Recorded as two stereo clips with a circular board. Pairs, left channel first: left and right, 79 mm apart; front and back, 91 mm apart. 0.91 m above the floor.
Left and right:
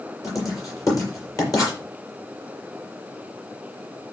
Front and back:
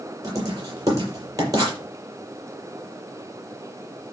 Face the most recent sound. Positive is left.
turn(degrees=135)